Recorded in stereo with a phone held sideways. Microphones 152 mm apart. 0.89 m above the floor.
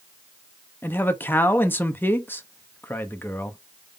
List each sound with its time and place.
0.8 s a man speaking: 15° left (ahead or behind), 0.7 m